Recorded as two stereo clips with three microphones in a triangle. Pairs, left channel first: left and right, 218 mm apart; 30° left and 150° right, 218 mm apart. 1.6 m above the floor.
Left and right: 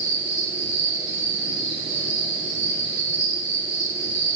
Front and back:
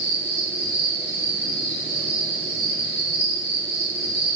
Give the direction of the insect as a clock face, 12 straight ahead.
10 o'clock.